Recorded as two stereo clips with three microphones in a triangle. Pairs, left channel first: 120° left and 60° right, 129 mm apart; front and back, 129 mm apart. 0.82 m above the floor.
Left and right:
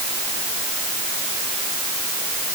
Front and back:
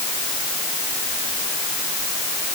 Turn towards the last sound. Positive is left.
No sound to turn to.